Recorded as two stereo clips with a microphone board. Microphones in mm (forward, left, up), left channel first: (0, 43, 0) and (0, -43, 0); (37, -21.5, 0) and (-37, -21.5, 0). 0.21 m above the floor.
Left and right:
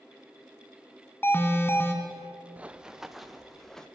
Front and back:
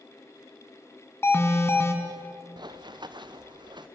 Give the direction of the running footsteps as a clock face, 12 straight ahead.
5 o'clock.